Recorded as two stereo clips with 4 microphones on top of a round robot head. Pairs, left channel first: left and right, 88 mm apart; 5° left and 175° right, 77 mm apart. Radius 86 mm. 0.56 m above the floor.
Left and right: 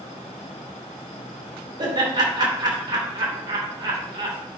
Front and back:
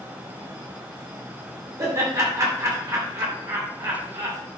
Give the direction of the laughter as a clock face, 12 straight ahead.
4 o'clock.